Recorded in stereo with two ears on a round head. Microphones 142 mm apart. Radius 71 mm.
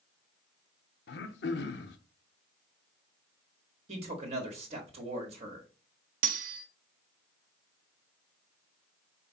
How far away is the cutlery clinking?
About 0.7 m.